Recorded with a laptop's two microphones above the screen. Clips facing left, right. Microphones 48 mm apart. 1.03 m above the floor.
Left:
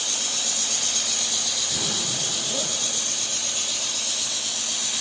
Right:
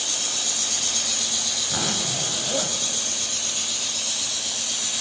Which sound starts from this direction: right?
A zipper, at 1.6 s.